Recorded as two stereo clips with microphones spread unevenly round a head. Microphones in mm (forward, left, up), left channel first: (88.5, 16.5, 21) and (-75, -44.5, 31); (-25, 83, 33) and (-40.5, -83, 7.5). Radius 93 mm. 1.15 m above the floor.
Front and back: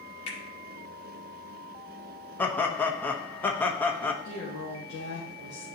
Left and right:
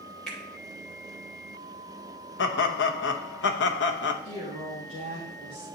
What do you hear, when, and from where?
0.3 s a finger snap: straight ahead, 2 m
2.4 s laughter: 100° left, 1.0 m
4.2 s a woman speaking: 50° left, 1.7 m